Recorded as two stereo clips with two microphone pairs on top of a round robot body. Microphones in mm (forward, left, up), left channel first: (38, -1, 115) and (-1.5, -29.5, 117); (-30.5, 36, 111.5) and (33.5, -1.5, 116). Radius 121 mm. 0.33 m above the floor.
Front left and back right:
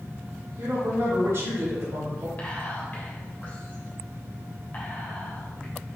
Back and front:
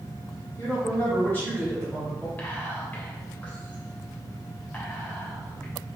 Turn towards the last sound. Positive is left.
turn(degrees=90)